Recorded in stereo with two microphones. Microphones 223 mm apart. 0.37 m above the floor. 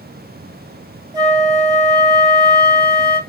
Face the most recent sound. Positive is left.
turn(degrees=-15)  # may be behind; listen again after turning